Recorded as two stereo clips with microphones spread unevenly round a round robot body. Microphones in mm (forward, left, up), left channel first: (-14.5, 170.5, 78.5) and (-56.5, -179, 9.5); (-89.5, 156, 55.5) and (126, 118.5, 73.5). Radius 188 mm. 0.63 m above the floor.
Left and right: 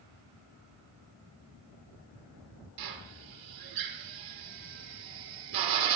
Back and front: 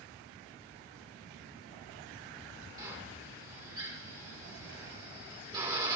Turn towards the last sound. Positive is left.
turn(degrees=-85)